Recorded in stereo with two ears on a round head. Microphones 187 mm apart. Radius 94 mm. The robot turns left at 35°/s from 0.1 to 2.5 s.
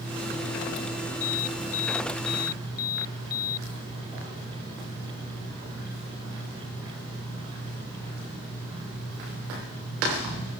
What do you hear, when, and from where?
1.2 s an alarm: 90° left; by 3.7 s 45° left